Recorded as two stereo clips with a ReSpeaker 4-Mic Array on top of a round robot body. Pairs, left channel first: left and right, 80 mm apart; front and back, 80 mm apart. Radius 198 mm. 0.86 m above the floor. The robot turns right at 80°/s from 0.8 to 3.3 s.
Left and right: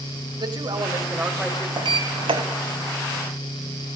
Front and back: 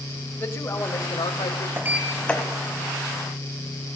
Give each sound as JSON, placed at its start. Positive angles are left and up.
{"t": 0.4, "sound": "a man speaking", "azimuth_deg": -65, "distance_m": 5.5}
{"t": 1.8, "sound": "a sliding door", "azimuth_deg": -120, "distance_m": 1.3}